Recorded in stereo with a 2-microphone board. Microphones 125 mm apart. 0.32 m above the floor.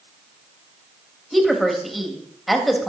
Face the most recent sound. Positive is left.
turn(degrees=0)  # may be behind; listen again after turning